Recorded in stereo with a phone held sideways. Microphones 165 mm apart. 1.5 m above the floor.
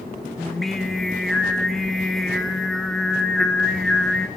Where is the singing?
Centre (ahead or behind), 0.5 m.